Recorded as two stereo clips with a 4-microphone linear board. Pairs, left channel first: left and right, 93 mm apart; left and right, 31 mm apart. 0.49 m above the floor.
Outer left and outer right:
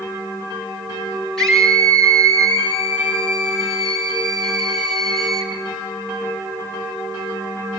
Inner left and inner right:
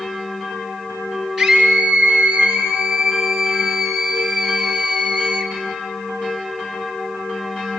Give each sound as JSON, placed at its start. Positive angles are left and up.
{"t": 1.4, "sound": "a scream", "side_deg": 5, "distance_m": 7.0}